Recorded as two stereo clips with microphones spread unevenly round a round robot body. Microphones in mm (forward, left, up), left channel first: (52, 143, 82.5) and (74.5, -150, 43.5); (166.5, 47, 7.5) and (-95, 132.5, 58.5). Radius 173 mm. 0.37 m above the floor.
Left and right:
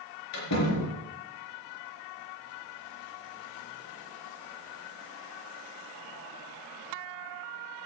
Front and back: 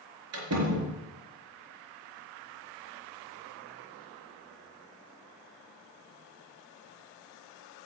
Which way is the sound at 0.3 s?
130° left.